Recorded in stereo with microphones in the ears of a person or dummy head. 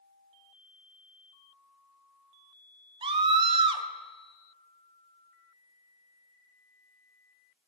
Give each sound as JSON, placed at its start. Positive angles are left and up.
{"t": 3.0, "sound": "a scream", "side_deg": -30, "distance_m": 0.8}